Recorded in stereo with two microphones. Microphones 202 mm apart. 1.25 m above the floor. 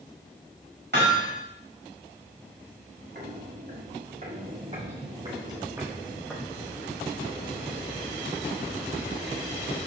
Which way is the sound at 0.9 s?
60° right (ahead or behind).